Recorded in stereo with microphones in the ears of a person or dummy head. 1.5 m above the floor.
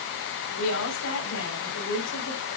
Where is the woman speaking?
75° left (ahead or behind), 5 m.